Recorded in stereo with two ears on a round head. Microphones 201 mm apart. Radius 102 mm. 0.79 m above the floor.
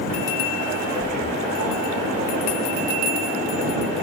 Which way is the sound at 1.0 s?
45° right (ahead or behind).